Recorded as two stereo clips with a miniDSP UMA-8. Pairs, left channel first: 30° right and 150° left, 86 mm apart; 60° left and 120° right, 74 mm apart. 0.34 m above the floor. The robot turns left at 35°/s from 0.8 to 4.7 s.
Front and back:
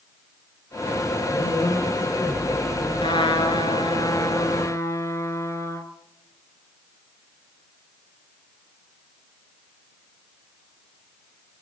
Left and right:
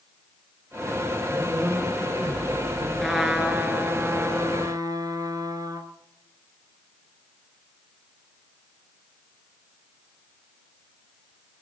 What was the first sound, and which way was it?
A woman speaking, 45° right.